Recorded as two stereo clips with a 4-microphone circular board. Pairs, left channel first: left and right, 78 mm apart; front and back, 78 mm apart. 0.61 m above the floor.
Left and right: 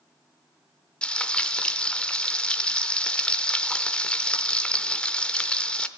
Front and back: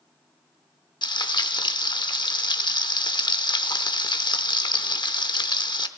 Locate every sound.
1.0 s frying: 15° left, 0.8 m